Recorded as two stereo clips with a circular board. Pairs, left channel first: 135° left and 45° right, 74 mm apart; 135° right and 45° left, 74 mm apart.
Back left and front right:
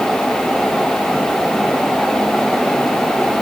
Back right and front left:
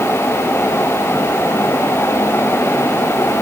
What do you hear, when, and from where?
Only background noise.